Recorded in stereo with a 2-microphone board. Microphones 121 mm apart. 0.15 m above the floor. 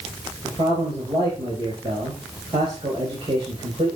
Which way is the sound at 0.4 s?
50° right (ahead or behind).